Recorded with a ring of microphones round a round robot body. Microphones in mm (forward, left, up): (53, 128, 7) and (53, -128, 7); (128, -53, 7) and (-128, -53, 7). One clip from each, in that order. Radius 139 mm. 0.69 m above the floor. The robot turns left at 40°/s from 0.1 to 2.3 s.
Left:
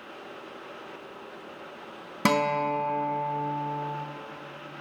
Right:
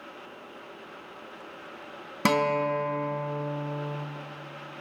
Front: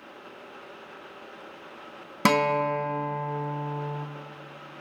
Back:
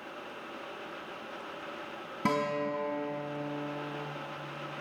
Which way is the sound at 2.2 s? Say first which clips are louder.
Even, front 8 dB; 5° right.